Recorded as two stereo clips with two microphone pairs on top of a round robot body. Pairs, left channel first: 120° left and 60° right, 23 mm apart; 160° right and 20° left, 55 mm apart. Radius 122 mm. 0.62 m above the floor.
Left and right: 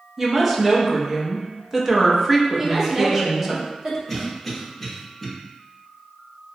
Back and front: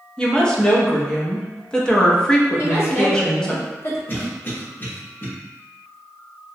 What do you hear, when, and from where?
0.2 s a woman speaking: 145° right, 0.8 m
2.6 s a woman speaking: 130° right, 1.3 m
4.1 s a cough: 155° right, 1.1 m